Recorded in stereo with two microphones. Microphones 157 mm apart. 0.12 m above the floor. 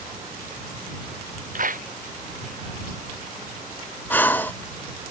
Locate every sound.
1.6 s a clap: 60° right (ahead or behind)
4.1 s breathing: 10° left (ahead or behind)